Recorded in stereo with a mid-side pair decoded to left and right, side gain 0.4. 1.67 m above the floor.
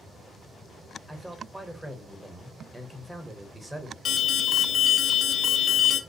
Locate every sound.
1.1 s a man speaking: 15° right, 0.9 m
4.0 s an alarm: 70° left, 0.6 m